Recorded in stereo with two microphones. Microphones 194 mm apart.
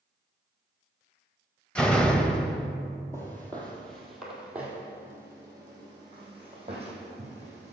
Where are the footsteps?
15° left (ahead or behind), 2.5 m; by 7.7 s 35° right (ahead or behind), 4 m.